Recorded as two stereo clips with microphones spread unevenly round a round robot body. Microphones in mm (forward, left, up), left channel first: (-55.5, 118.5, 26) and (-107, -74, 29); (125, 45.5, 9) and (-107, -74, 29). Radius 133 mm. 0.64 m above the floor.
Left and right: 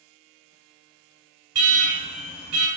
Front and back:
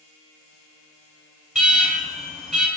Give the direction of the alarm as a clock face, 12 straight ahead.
2 o'clock.